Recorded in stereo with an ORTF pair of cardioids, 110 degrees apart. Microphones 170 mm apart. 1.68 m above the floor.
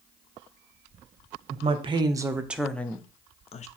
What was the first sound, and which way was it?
A woman speaking, 40° right.